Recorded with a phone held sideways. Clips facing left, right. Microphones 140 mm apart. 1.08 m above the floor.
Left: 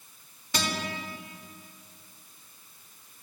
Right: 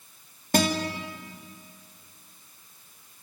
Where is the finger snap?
No finger snap in this recording.